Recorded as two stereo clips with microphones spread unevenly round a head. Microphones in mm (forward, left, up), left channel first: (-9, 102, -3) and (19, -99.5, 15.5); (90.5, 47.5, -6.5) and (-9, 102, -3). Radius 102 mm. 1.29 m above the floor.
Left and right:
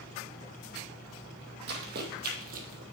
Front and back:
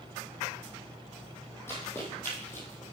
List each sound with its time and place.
1.7 s running footsteps: 100° right, 2 m